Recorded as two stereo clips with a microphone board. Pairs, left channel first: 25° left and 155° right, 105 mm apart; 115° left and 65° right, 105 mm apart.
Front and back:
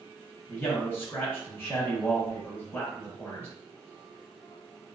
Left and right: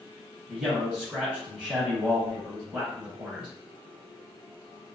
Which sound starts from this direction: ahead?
A man speaking, at 0.5 s.